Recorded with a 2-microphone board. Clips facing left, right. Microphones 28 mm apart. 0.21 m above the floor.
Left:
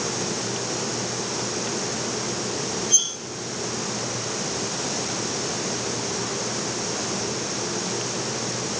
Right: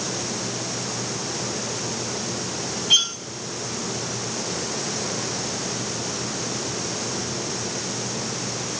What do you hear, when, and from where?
2.9 s cutlery clinking: 60° right (ahead or behind), 1.0 m